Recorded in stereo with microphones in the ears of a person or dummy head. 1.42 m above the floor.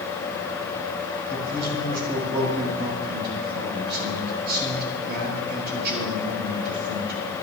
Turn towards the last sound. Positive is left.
turn(degrees=-60)  # may be behind; listen again after turning